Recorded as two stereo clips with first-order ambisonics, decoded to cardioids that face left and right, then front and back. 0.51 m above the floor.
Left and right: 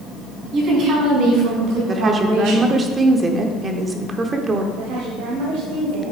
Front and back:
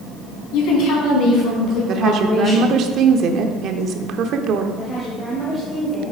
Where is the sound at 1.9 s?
155° right, 0.9 m.